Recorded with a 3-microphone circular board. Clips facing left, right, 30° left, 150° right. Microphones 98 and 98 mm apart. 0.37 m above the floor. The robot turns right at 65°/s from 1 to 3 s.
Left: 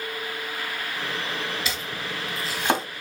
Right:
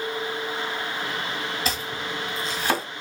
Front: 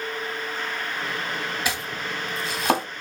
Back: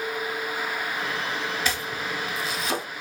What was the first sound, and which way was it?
Chopping, 45° right.